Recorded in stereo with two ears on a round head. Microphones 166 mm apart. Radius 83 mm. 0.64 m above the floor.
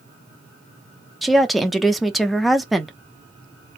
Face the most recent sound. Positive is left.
turn(degrees=0)  # may be behind; listen again after turning